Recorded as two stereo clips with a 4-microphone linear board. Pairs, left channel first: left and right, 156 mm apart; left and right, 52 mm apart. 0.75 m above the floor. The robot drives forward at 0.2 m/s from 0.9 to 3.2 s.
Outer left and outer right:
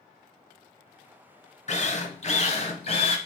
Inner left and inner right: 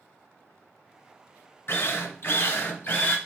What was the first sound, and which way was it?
A drill, 50° left (ahead or behind).